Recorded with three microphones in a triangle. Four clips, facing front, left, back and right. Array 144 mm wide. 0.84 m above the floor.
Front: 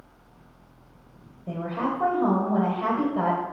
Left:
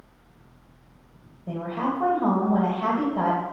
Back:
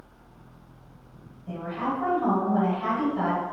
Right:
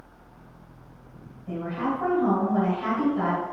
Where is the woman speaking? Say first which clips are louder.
Left 1 dB, front 2 dB; 40° left, 3 m.